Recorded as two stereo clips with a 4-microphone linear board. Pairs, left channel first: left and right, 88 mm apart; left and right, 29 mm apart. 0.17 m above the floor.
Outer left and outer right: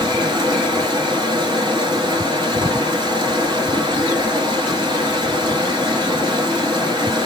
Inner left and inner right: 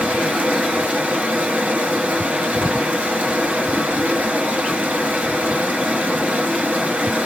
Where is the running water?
60° right (ahead or behind), 1.0 m.